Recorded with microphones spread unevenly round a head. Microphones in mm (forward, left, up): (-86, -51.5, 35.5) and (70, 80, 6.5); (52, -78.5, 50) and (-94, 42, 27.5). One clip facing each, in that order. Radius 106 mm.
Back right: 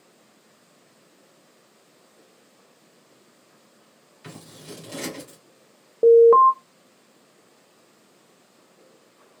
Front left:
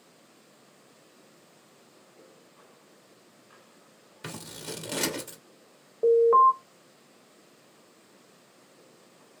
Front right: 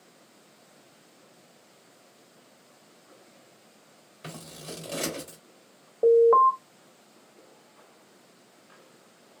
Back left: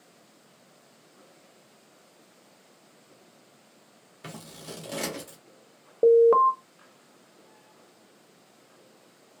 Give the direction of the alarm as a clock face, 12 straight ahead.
6 o'clock.